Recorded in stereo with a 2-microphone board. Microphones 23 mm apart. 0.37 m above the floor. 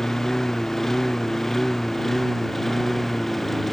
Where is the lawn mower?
15° left (ahead or behind); by 3.7 s 5° left (ahead or behind).